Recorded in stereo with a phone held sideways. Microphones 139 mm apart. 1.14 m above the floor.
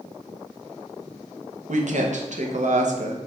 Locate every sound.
1.7 s a woman speaking: 60° right (ahead or behind), 0.7 m